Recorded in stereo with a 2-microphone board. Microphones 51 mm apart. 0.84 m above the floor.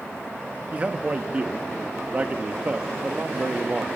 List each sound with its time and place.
0.7 s a man speaking: 25° right (ahead or behind), 1.1 m